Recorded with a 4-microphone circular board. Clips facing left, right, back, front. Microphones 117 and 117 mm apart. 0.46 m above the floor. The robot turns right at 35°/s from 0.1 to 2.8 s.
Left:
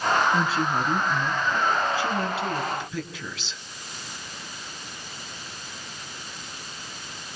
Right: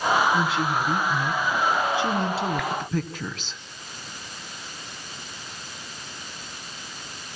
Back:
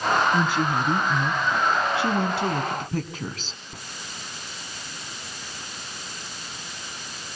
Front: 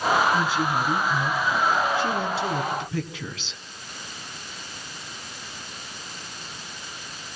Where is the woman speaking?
140° left, 4.5 m; by 3.6 s 135° right, 4.5 m.